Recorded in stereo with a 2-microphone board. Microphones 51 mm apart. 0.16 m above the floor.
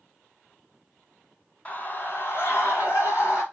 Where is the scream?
30° left (ahead or behind), 1.1 m; by 3.4 s 65° left (ahead or behind), 2.5 m.